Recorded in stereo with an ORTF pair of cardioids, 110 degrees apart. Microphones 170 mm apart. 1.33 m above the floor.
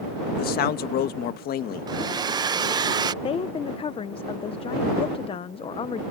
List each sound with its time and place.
0.4 s a man speaking: 65° left
1.9 s a hair dryer: 25° right
3.2 s a woman speaking: 35° left